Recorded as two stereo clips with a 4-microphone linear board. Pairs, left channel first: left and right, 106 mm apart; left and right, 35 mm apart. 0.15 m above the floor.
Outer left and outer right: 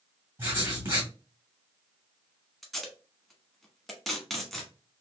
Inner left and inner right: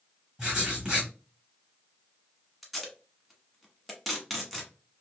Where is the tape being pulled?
Centre (ahead or behind), 1.0 m.